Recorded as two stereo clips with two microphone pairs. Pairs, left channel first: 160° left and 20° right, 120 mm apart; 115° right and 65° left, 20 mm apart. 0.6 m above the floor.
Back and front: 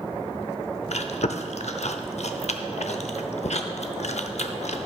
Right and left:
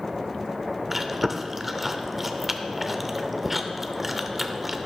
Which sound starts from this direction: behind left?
Chewing, at 0.9 s.